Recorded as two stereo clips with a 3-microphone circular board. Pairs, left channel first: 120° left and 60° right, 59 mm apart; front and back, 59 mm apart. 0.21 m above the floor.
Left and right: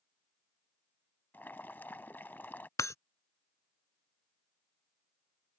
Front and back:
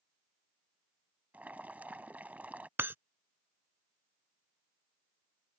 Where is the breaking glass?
130° left.